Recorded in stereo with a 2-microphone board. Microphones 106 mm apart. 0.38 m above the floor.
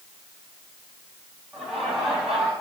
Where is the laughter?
Centre (ahead or behind), 3.5 m.